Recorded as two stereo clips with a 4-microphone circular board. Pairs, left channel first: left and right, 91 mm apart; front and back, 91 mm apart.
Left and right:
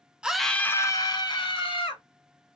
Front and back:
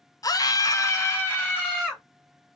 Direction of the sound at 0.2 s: 15° right.